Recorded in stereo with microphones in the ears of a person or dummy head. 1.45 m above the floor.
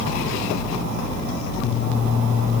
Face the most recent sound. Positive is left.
No sound to turn to.